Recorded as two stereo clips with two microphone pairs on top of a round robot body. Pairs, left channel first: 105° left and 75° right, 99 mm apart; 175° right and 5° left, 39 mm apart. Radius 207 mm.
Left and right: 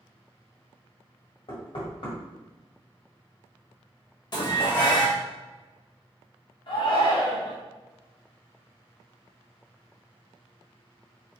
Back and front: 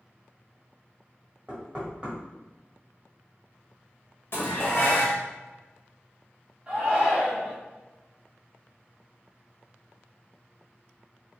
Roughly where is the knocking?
Left.